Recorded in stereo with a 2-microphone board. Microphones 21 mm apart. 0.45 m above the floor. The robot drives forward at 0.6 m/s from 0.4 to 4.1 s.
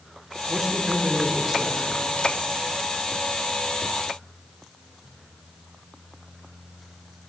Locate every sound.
0.5 s a man speaking: 15° right (ahead or behind), 1.4 m